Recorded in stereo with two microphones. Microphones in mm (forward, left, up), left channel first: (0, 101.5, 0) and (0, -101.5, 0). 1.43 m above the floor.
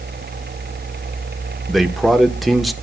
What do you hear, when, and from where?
1.7 s a man speaking: centre (ahead or behind), 1.0 m